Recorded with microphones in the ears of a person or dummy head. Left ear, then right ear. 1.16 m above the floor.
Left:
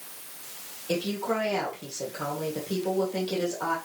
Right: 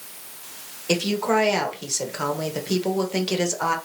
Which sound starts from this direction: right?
A woman speaking, at 0.9 s.